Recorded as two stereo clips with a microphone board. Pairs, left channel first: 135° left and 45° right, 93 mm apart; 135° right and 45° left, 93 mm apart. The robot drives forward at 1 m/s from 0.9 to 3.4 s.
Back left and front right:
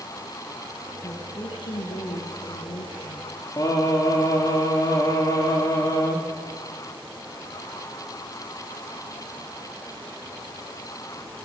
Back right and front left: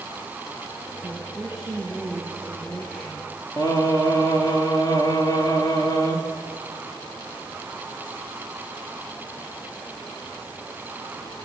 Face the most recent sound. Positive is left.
turn(degrees=-175)